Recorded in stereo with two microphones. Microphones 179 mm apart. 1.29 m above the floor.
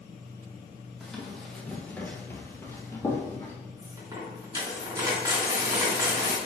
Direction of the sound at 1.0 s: Centre (ahead or behind).